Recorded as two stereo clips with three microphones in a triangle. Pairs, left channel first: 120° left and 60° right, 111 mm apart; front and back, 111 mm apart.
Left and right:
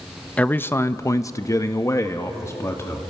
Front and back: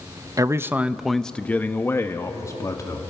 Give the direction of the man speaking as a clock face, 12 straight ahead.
6 o'clock.